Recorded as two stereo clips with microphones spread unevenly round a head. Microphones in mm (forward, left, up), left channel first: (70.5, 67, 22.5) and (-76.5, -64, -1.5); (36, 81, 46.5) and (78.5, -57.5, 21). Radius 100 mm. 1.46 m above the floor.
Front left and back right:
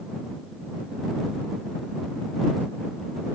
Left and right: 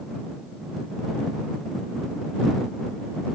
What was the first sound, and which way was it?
Only background noise.